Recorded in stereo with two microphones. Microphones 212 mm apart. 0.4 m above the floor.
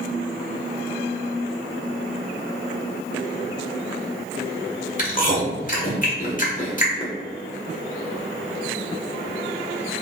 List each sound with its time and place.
5.0 s chewing: 40° left (ahead or behind), 1.1 m